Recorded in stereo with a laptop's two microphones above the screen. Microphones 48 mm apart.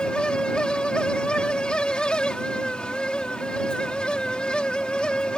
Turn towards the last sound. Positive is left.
turn(degrees=20)  # may be behind; listen again after turning